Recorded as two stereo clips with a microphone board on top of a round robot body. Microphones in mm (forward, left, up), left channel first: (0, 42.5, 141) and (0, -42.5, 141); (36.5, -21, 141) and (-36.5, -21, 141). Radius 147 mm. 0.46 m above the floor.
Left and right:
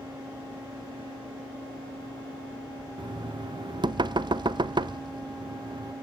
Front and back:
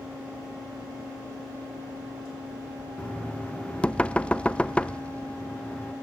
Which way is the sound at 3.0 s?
75° right.